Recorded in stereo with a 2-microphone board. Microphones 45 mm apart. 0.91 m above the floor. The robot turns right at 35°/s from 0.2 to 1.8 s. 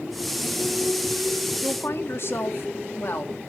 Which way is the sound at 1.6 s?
55° left (ahead or behind).